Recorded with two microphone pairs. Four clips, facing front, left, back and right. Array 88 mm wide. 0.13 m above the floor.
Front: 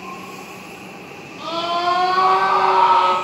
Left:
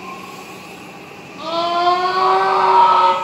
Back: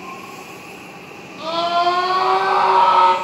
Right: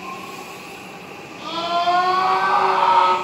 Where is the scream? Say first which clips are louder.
Left 4 dB, back 4 dB; 135° left, 4 m; by 3.1 s 145° left, 4.5 m.